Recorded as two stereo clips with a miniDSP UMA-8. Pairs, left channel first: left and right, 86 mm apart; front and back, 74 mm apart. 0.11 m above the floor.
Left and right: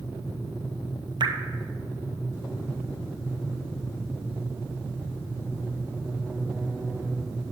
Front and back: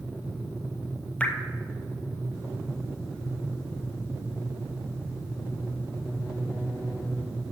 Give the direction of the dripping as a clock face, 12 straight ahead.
2 o'clock.